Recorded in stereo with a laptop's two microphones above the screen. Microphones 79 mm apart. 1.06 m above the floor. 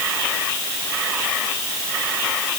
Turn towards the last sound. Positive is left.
No sound to turn to.